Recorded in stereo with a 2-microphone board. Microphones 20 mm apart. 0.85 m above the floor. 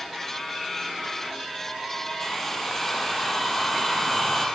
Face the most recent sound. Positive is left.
turn(degrees=5)  # may be behind; listen again after turning